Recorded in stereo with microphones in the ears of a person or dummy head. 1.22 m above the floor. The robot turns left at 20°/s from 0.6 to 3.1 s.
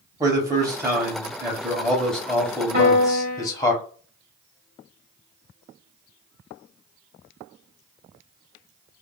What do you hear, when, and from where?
0.2 s a man speaking: 155° right, 0.7 m; by 3.7 s 155° left, 0.7 m
2.7 s a piano: 45° right (ahead or behind), 1.1 m; by 3.5 s 50° right (ahead or behind), 1.1 m